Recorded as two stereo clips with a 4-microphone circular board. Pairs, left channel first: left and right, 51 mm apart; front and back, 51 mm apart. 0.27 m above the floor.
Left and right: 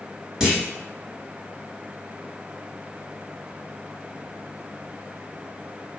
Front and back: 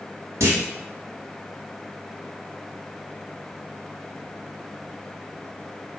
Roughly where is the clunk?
Behind.